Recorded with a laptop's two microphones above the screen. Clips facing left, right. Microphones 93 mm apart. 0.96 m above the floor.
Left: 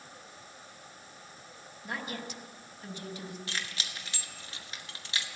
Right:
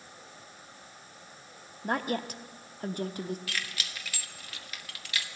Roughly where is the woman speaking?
Right.